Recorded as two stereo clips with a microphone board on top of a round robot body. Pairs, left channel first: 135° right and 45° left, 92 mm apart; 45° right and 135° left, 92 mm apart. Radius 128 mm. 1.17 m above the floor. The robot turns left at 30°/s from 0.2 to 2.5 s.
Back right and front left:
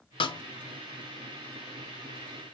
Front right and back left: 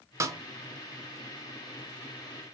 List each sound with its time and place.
0.2 s a snare drum: 165° right, 0.6 m; by 0.4 s 170° right, 0.6 m